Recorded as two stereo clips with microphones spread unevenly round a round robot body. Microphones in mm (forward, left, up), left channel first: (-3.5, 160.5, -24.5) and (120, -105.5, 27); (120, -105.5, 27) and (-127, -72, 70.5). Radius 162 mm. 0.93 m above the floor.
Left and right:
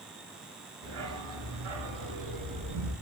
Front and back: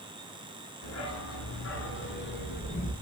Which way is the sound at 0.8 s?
30° right.